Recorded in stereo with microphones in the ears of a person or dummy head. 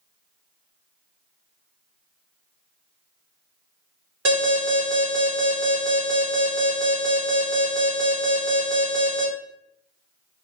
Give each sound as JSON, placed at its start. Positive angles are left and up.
{"t": 4.2, "sound": "an alarm", "side_deg": -75, "distance_m": 1.8}